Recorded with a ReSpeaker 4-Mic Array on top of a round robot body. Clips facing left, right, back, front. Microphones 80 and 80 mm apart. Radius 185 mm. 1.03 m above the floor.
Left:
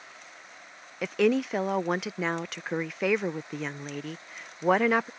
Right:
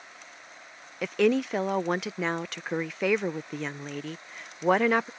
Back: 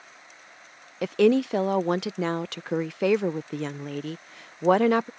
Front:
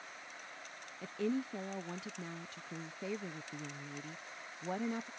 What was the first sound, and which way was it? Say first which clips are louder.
A woman speaking: even, back 16 dB; straight behind.